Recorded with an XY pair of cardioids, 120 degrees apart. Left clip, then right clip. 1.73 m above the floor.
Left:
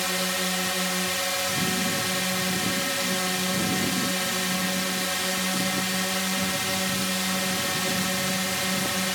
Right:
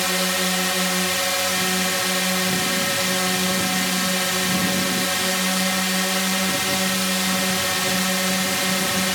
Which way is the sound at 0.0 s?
25° right.